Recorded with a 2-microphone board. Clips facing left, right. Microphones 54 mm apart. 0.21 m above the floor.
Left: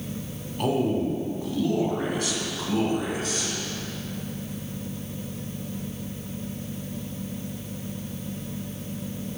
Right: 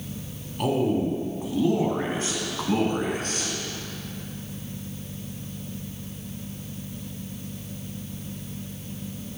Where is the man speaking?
Centre (ahead or behind), 2 m; by 3.5 s 50° right (ahead or behind), 2.5 m.